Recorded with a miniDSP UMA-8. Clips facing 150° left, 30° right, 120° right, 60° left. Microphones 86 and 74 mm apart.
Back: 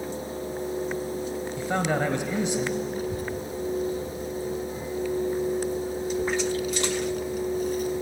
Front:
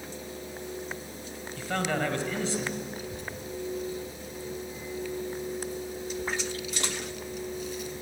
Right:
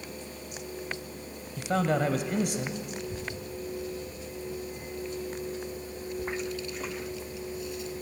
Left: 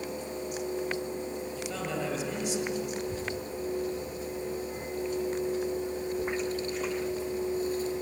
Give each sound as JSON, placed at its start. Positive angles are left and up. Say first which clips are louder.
{"t": 1.6, "sound": "a man speaking", "louder": "back 3 dB, right 10 dB", "azimuth_deg": -140, "distance_m": 1.8}
{"t": 3.0, "sound": "a child speaking", "louder": "back 8 dB, left 3 dB", "azimuth_deg": 110, "distance_m": 2.5}